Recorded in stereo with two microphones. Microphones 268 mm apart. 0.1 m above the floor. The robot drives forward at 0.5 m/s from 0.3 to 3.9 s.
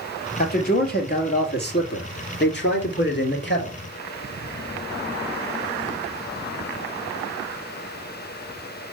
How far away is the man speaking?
About 2.5 m.